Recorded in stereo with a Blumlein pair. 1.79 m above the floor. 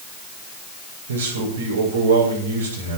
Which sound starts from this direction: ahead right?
A man speaking, at 1.1 s.